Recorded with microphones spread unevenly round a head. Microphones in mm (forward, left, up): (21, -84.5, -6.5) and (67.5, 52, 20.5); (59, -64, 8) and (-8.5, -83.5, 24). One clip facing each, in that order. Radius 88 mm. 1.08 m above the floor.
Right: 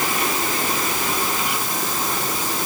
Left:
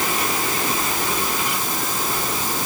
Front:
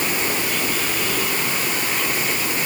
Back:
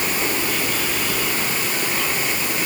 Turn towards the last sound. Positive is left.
No sound to turn to.